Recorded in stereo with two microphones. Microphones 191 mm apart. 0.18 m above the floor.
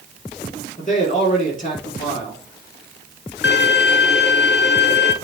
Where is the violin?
65° left (ahead or behind), 0.5 m.